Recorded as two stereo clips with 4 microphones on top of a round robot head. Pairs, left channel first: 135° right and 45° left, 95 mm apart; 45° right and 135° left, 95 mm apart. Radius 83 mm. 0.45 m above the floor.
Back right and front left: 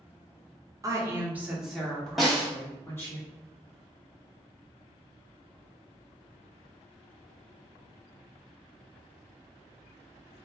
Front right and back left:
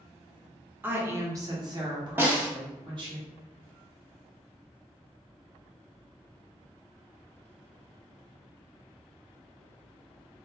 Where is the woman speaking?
75° left, 0.9 m; by 3.2 s 165° left, 1.5 m.